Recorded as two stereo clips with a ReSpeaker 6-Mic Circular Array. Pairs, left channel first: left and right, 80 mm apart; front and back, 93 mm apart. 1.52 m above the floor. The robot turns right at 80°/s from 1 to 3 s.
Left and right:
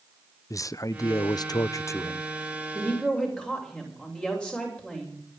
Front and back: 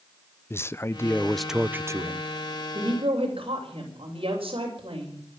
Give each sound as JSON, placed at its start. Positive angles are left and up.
{"t": 0.5, "sound": "a man speaking", "azimuth_deg": 55, "distance_m": 0.5}
{"t": 2.7, "sound": "a woman speaking", "azimuth_deg": 150, "distance_m": 7.5}